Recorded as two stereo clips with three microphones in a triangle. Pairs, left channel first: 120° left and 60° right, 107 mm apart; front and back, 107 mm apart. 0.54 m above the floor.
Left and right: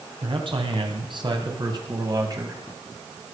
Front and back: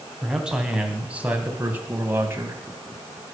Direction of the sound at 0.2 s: 95° right.